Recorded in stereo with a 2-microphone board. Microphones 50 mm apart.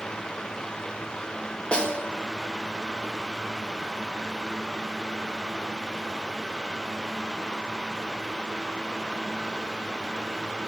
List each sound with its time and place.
1.7 s a snare drum: 20° left (ahead or behind), 1.1 m